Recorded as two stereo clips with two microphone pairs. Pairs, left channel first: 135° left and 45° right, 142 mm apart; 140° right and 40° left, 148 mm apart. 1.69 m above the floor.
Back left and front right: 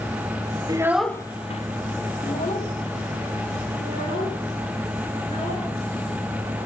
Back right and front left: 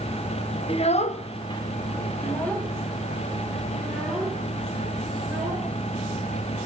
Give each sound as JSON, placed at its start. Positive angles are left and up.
{"t": 0.7, "sound": "a child speaking", "azimuth_deg": -100, "distance_m": 0.7}